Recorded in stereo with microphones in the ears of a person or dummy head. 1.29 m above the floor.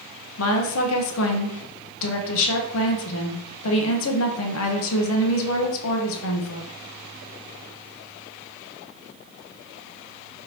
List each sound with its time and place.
0.4 s a woman speaking: 80° left, 0.7 m